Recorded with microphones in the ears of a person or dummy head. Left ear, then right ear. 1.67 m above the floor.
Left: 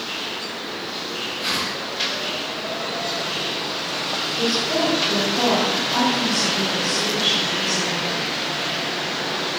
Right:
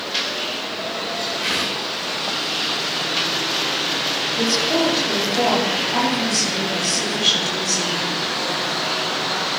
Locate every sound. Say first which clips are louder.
1.4 s a whoosh: right 1 dB; 15° right (ahead or behind), 6.5 m
4.3 s a woman speaking: right 2 dB; 55° right (ahead or behind), 9 m